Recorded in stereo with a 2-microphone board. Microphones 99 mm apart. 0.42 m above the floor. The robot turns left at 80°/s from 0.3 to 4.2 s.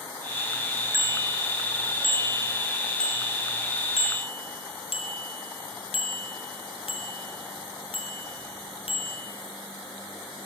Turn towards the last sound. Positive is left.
turn(degrees=70)  # may be behind; listen again after turning